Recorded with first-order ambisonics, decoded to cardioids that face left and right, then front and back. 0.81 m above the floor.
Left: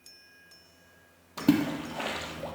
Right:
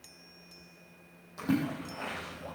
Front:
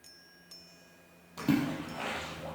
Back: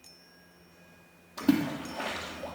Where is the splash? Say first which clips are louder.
Left 6 dB, back 3 dB; 90° left, 3.5 m.